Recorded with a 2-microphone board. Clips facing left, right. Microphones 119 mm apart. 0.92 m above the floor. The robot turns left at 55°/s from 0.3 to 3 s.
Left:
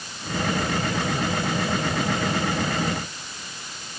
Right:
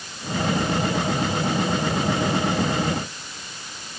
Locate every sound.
Only background noise.